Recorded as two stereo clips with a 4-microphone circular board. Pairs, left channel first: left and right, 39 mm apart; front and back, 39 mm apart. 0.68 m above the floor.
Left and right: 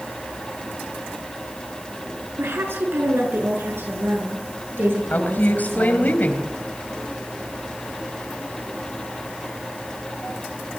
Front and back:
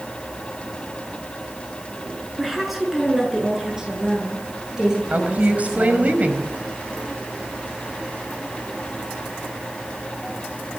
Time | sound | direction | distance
2.4 | a woman speaking | 95° right | 7 m
5.1 | a woman speaking | 135° left | 4.5 m